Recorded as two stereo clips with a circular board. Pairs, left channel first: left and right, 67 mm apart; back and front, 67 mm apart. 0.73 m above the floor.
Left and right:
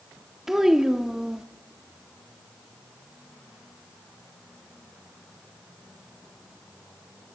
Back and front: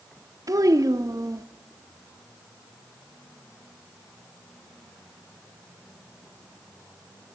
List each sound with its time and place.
0.5 s a child speaking: 5° right, 0.7 m